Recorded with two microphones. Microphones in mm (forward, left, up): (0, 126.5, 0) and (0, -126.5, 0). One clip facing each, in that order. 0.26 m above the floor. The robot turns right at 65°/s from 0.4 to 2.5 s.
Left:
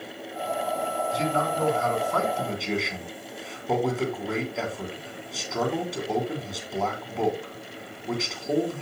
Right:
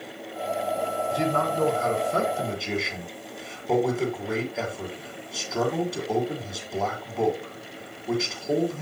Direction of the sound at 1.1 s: 95° right.